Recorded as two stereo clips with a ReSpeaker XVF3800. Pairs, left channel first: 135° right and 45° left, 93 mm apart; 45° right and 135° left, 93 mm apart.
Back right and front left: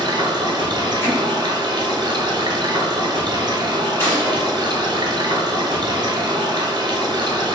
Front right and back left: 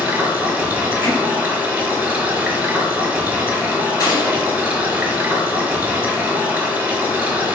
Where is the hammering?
175° right, 1.1 m.